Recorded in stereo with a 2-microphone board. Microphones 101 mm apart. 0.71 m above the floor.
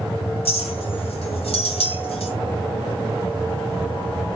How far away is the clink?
About 1.6 m.